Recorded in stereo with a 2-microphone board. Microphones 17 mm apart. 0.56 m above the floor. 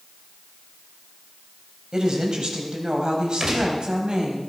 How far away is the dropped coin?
I don't hear a dropped coin.